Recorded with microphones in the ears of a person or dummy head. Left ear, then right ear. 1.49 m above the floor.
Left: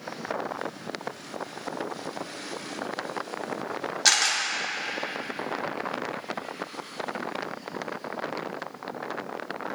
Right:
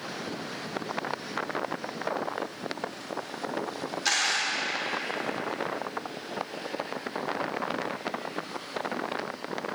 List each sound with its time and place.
4.0 s a camera shutter: 20° left (ahead or behind), 1.6 m